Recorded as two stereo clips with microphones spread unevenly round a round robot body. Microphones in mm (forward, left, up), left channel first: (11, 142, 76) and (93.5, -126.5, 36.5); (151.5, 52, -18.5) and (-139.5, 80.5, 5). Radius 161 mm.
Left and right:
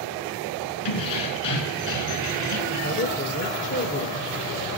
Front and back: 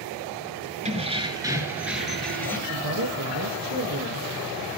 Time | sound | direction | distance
0.8 | keys jangling | 105° left | 3.5 m
2.7 | a woman speaking | 160° left | 1.8 m